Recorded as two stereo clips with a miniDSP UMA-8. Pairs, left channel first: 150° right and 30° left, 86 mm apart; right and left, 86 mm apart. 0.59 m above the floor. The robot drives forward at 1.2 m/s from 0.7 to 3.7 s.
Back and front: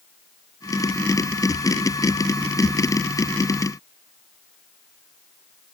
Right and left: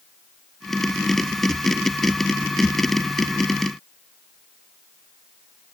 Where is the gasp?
I don't hear a gasp.